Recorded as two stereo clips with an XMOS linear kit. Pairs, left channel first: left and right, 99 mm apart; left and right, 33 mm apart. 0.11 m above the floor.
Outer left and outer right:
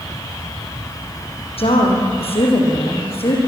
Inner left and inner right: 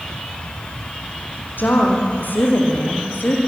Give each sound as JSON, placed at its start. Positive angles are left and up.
{"t": 1.6, "sound": "a woman speaking", "side_deg": 75, "distance_m": 5.5}